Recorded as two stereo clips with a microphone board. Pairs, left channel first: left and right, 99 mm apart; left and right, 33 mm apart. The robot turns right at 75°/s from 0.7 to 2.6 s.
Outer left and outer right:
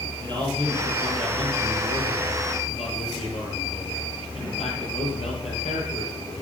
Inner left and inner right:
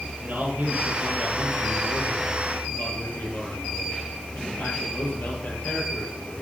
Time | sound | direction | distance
0.2 | a man speaking | 45° right | 6.5 m